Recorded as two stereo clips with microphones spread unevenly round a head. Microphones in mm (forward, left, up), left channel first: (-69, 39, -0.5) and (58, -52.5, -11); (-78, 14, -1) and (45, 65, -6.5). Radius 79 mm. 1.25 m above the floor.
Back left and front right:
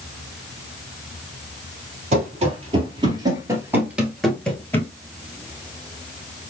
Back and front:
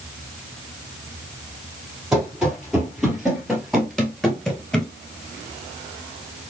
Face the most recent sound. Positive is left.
turn(degrees=140)